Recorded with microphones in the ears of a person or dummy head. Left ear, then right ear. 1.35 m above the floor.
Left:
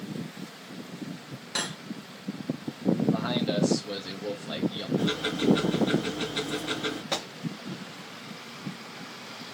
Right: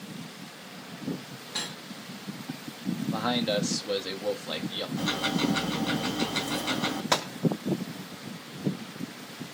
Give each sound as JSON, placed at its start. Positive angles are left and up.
{"t": 1.6, "sound": "cutlery clinking", "side_deg": 40, "distance_m": 1.1}
{"t": 3.1, "sound": "a man speaking", "side_deg": -15, "distance_m": 0.9}
{"t": 5.0, "sound": "ticking", "side_deg": -50, "distance_m": 1.9}
{"t": 7.1, "sound": "a gunshot", "side_deg": -40, "distance_m": 0.8}